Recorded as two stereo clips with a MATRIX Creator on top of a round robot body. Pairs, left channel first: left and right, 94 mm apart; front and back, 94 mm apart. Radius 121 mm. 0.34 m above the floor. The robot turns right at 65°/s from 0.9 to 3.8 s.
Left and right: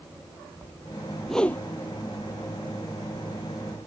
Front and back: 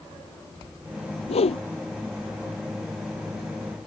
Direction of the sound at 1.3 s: Straight ahead.